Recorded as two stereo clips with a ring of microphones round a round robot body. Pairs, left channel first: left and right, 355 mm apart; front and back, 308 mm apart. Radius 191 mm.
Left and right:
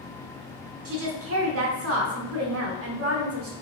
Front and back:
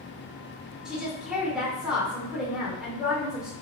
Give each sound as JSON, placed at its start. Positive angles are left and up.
{"t": 0.8, "sound": "a woman speaking", "azimuth_deg": -95, "distance_m": 1.2}